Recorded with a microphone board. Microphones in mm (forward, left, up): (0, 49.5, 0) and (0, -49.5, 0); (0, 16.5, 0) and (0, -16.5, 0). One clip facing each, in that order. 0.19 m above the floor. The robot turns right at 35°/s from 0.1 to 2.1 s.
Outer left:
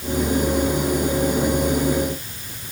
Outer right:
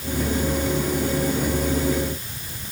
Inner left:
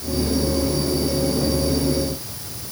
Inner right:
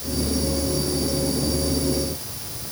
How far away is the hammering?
No hammering in this recording.